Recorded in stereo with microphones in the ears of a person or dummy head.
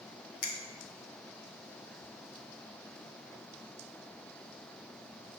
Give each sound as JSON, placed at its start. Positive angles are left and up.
{"t": 0.4, "sound": "a finger snap", "side_deg": 55, "distance_m": 1.1}